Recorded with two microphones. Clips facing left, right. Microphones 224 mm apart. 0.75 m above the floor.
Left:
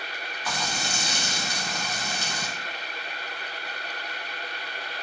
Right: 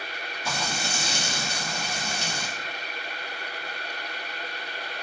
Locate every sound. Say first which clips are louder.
0.5 s frying: right 1 dB; 25° right (ahead or behind), 0.7 m